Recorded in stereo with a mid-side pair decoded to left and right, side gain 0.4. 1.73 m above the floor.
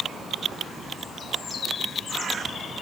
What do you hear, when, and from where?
Only background noise.